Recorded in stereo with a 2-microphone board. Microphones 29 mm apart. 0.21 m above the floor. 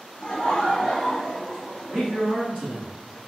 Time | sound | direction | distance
0.2 | laughter | 55° left (ahead or behind) | 2.0 m
1.9 | a man speaking | 35° left (ahead or behind) | 1.8 m